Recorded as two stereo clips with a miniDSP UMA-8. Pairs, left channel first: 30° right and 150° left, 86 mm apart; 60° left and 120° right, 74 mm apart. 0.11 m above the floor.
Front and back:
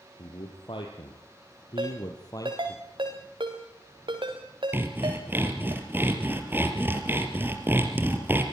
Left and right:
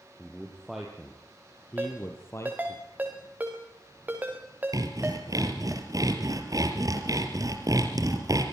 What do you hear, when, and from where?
0.2 s a man speaking: 40° right, 3.5 m; by 2.8 s 20° left, 3 m
1.8 s a ringtone: 170° left, 5 m
4.7 s sawing: 145° right, 3 m